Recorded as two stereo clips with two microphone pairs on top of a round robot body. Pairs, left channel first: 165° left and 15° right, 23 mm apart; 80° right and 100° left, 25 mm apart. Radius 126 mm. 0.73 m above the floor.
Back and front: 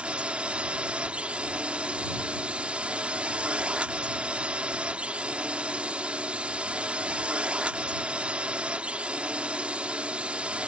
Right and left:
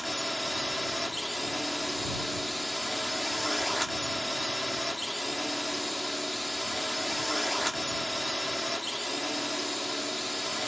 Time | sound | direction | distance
0.0 | a drone | 15° left | ?